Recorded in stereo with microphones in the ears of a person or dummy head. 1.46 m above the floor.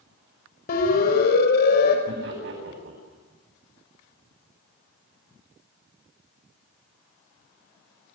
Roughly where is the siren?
Left.